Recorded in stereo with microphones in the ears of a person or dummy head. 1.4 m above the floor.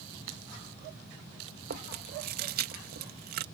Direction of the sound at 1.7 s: 45° right (ahead or behind).